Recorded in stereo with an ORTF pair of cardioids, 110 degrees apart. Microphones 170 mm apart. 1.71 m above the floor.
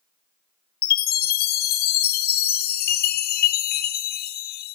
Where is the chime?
65° left, 0.9 m.